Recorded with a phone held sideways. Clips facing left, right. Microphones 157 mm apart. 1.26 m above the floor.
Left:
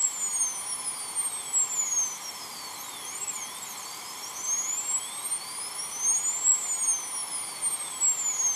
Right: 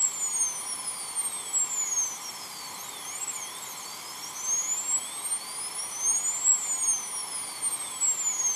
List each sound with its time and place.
Only background noise.